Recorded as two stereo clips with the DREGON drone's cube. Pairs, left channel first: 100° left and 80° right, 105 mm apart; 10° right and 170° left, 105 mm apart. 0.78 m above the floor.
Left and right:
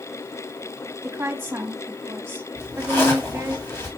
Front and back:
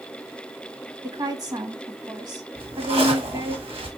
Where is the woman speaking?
145° right, 1.3 m.